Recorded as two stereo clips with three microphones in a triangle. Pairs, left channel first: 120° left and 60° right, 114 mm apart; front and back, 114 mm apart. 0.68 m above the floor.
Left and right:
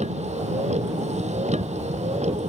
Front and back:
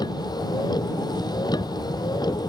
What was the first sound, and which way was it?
A vehicle, 55° right.